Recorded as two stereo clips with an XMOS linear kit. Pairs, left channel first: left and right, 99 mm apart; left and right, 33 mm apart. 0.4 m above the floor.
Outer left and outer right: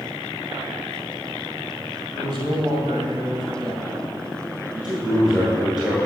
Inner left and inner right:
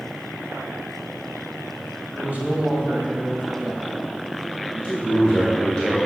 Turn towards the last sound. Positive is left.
turn(degrees=-5)  # may be behind; listen again after turning